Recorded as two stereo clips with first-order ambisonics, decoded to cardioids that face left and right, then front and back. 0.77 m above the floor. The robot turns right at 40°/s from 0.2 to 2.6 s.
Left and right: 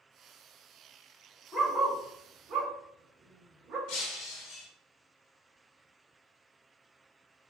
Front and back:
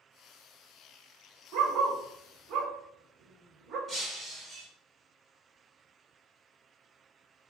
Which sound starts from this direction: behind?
A dog barking, at 1.5 s.